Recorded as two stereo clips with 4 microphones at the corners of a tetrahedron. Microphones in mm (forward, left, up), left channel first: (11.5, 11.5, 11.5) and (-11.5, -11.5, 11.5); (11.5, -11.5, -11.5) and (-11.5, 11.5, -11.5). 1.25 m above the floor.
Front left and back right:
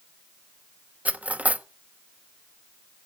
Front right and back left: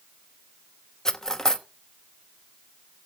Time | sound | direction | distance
1.1 | cutlery clinking | 115° right | 0.8 m